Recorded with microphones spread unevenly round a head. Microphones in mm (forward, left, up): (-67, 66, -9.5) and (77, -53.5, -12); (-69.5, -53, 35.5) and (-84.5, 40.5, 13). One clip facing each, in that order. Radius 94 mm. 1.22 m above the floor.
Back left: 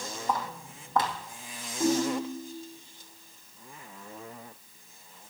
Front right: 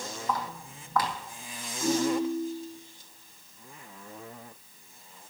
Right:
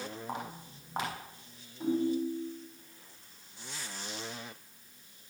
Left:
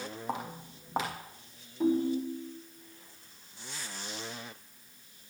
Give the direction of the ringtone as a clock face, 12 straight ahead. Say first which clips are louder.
Even, left 2 dB; 9 o'clock.